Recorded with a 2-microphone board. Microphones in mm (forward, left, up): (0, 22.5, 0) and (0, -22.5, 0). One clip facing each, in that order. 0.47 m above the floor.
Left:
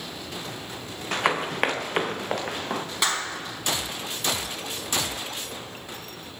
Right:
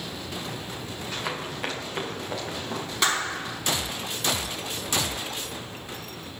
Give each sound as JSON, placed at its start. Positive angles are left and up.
{"t": 1.1, "sound": "running footsteps", "side_deg": 70, "distance_m": 1.4}
{"t": 3.0, "sound": "a clap", "side_deg": 5, "distance_m": 3.5}